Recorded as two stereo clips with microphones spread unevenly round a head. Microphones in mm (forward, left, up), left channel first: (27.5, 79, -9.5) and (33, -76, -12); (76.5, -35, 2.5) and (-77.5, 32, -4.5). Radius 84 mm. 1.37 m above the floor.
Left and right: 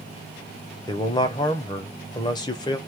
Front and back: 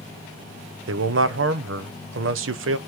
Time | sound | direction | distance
0.9 | a man speaking | 160° left | 0.6 m